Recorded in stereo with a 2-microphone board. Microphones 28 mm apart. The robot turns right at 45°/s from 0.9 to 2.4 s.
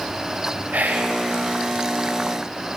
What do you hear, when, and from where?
0.7 s whispering: 80° right, 0.8 m; by 1.2 s 75° right (ahead or behind), 0.8 m